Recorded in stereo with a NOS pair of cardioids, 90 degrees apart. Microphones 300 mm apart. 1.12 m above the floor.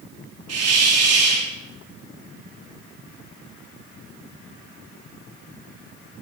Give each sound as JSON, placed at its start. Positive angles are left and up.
{"t": 0.5, "sound": "a hiss", "azimuth_deg": -55, "distance_m": 3.0}